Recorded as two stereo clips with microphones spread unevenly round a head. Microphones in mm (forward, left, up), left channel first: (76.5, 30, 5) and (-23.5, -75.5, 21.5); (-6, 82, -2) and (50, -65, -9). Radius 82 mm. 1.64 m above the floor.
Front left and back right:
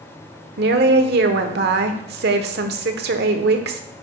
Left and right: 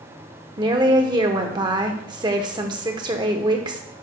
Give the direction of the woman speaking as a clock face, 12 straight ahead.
5 o'clock.